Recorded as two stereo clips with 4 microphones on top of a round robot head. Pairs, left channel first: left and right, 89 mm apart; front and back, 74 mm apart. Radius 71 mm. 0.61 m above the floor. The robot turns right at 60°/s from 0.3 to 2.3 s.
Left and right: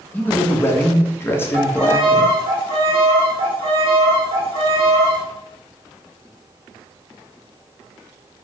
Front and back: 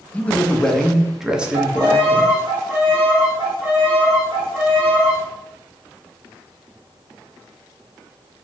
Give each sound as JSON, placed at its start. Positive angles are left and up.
{"t": 0.1, "sound": "a man speaking", "azimuth_deg": 45, "distance_m": 0.6}
{"t": 1.5, "sound": "a violin", "azimuth_deg": -155, "distance_m": 0.8}